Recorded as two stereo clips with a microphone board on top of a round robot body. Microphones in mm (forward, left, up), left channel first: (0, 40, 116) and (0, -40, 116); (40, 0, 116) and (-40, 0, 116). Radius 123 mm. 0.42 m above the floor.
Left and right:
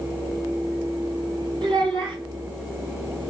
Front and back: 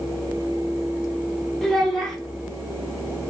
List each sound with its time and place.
1.6 s a child speaking: 85° right, 1.2 m